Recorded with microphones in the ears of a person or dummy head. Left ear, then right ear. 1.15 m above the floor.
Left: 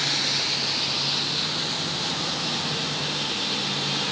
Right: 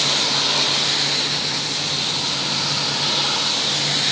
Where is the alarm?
I don't hear an alarm.